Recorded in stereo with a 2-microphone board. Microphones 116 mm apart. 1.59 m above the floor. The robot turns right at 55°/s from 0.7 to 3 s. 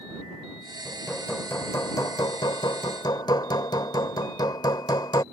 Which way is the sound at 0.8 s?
5° right.